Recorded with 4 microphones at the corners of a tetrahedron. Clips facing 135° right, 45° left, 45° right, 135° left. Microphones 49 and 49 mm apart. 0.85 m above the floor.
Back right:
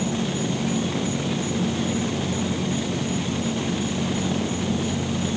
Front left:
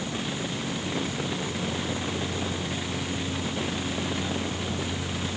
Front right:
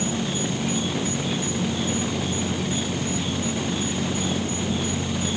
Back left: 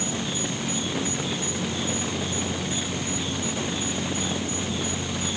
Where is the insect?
115° right.